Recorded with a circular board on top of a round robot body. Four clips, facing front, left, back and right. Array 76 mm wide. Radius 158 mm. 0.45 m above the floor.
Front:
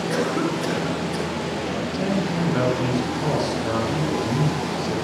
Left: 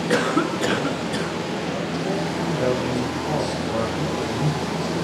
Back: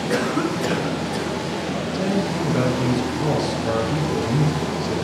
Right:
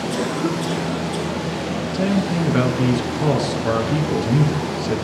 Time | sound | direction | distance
0.1 | a cough | 95° left | 7.5 m
1.9 | a man speaking | 80° right | 10 m